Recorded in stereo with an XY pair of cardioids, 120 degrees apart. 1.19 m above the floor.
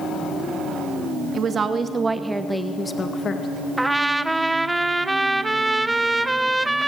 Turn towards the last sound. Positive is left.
turn(degrees=-10)